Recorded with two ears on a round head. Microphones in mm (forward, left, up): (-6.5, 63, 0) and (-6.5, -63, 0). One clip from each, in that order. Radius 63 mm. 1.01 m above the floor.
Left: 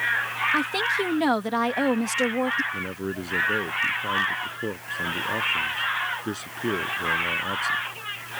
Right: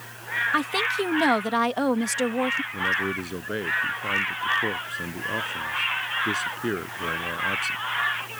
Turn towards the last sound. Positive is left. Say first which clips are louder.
# right 6 dB
turn(degrees=-10)  # may be behind; listen again after turning